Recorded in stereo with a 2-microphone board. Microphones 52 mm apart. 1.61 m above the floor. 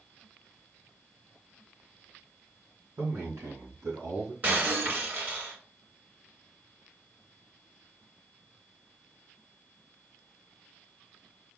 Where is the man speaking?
65° right (ahead or behind), 1.3 m; by 4.3 s 70° right (ahead or behind), 1.6 m.